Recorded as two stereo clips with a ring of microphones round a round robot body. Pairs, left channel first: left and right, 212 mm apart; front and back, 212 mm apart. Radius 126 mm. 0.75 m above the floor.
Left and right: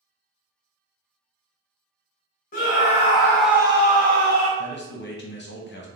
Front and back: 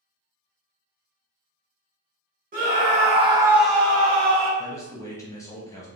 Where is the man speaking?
75° left, 0.7 m.